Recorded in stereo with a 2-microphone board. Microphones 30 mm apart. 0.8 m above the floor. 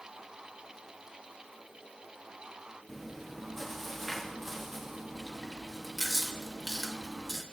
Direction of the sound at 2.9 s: 10° left (ahead or behind).